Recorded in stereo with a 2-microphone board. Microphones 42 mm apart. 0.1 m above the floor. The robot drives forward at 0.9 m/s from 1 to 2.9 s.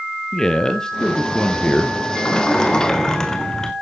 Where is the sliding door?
25° left (ahead or behind), 1.0 m; by 3.7 s 15° left (ahead or behind), 1.5 m.